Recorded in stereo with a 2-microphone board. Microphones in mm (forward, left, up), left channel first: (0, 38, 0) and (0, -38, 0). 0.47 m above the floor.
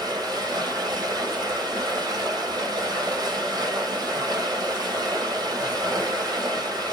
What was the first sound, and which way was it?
Running water, 60° right (ahead or behind).